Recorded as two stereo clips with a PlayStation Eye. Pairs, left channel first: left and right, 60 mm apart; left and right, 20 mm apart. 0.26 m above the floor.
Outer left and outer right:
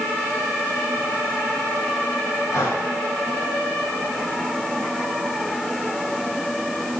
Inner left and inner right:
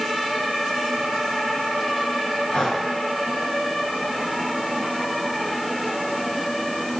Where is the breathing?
65° left (ahead or behind), 4 m.